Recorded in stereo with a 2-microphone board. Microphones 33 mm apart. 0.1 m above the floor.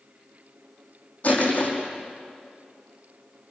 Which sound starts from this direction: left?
Crushing, at 1.2 s.